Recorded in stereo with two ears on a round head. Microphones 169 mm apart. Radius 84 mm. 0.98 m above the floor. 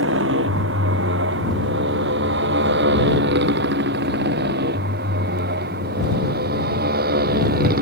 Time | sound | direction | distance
0.0 | a motorcycle | 70° right (ahead or behind) | ?